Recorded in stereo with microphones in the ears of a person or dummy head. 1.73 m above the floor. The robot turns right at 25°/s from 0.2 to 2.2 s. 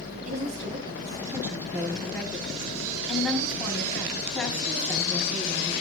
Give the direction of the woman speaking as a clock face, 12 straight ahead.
1 o'clock.